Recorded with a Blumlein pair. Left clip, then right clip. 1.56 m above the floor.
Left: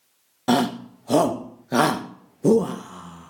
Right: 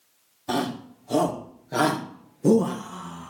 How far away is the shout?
About 2.5 m.